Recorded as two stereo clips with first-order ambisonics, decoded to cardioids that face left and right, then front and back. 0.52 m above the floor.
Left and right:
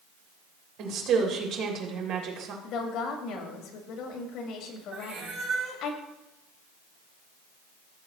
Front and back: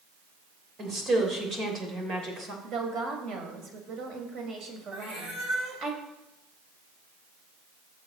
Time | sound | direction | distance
0.8 | a woman speaking | 120° right | 2.5 m
2.6 | a woman speaking | 135° left | 2.5 m
4.9 | a cat meowing | 145° right | 4.5 m